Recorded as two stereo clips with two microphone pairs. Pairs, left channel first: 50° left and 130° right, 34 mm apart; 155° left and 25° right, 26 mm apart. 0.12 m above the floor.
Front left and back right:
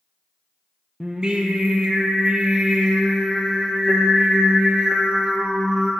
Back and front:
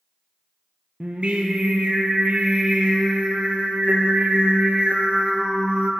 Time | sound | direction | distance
1.0 | singing | 65° right | 0.8 m